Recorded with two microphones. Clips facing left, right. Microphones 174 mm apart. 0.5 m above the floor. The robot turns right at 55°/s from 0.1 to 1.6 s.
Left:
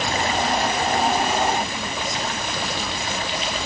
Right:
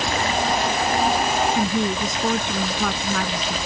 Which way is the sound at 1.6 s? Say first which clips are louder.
Right 6 dB; 75° right (ahead or behind).